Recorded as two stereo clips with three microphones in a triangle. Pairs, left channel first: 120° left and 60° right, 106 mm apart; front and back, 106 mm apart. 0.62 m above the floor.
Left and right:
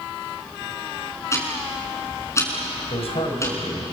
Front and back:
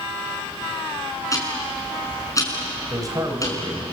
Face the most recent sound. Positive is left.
turn(degrees=130)